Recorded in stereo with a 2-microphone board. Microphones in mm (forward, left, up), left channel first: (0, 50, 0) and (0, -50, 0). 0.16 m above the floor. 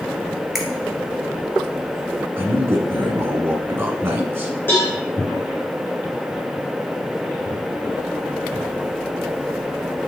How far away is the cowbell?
About 3.5 m.